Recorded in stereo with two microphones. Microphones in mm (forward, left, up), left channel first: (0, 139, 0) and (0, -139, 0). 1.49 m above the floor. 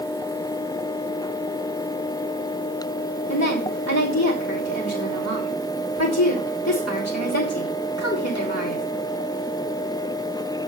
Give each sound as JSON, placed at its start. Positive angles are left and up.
{"t": 3.3, "sound": "a woman speaking", "side_deg": 70, "distance_m": 5.5}